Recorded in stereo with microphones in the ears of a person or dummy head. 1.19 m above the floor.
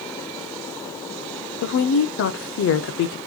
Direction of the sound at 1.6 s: 65° left (ahead or behind).